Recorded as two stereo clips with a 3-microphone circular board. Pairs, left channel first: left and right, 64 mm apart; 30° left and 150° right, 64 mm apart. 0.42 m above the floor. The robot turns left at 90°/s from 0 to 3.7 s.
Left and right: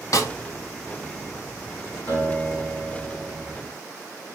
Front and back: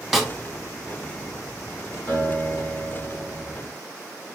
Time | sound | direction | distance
0.1 | a snare drum | 120° left | 0.6 m
2.1 | a guitar | 85° left | 2.5 m